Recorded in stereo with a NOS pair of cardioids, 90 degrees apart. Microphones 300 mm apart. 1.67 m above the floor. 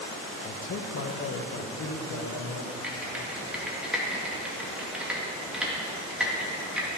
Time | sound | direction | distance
0.4 | a man speaking | 35° left | 0.9 m
2.8 | typing on a keyboard | 5° right | 1.9 m